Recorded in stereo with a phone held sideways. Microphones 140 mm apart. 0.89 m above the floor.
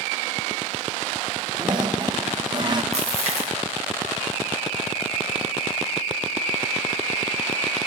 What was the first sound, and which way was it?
A toilet flushing, 35° right (ahead or behind).